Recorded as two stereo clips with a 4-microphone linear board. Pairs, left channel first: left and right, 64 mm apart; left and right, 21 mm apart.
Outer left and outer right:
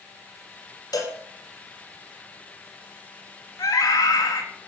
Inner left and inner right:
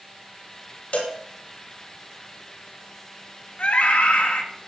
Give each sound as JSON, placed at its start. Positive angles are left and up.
{"t": 0.9, "sound": "a cowbell", "side_deg": 80, "distance_m": 5.5}
{"t": 3.6, "sound": "a scream", "side_deg": 85, "distance_m": 3.5}